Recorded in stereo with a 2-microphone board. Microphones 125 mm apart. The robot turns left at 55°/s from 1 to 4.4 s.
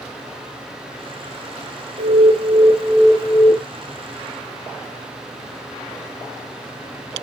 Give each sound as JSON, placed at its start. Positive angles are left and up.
{"t": 2.0, "sound": "an alarm", "azimuth_deg": -125, "distance_m": 1.1}